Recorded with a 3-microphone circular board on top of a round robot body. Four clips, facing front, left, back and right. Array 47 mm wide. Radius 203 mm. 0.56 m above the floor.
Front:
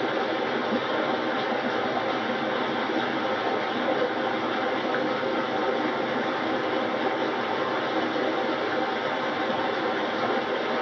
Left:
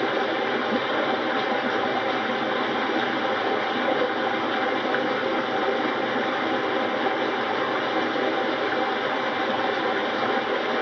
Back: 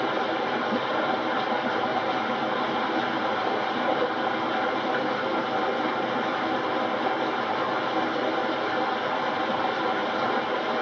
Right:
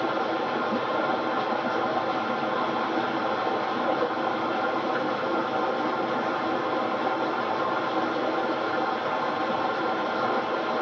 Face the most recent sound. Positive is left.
turn(degrees=85)